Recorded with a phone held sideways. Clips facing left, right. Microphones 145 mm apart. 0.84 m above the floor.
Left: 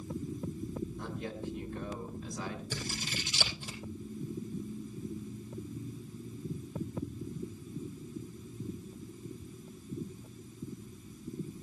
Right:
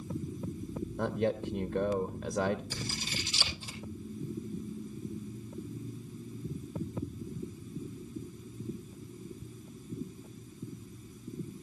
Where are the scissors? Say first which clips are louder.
Even; 60° left (ahead or behind), 8 m.